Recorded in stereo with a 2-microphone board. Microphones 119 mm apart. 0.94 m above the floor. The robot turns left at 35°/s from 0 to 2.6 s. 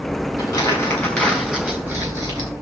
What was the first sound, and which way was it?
Crumpling, 35° left (ahead or behind).